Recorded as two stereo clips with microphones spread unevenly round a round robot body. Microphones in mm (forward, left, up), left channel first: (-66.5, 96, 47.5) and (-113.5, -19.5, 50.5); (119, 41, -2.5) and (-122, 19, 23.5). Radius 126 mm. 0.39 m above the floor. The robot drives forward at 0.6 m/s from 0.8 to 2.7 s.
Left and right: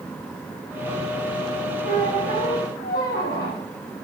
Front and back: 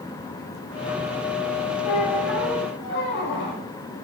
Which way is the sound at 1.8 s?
50° left.